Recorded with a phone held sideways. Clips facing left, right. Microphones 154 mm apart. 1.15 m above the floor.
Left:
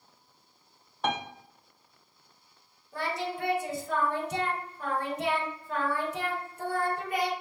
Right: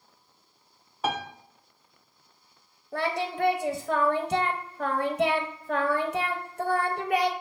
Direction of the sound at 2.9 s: 65° right (ahead or behind).